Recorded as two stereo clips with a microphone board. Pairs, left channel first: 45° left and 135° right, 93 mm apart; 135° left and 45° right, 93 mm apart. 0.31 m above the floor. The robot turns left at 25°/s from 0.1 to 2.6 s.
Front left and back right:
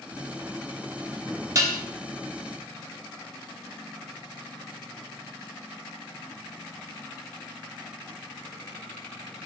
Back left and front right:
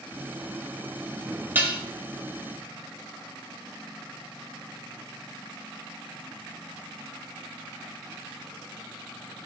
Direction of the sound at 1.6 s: 100° right.